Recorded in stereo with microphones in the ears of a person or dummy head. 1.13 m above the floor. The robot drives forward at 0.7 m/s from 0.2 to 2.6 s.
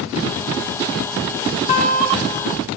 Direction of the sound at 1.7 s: 40° left (ahead or behind).